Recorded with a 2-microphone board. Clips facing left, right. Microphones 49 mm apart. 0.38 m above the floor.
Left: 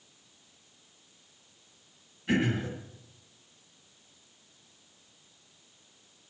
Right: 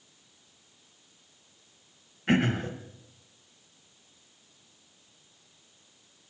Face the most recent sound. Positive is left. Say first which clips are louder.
# right 2 dB
turn(degrees=-55)  # may be behind; listen again after turning